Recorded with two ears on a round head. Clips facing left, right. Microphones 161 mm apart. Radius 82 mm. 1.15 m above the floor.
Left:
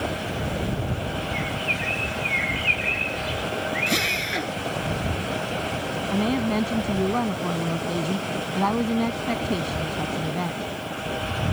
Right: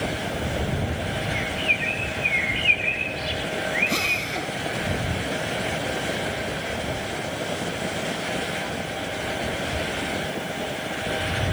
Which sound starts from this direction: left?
A woman speaking, at 6.1 s.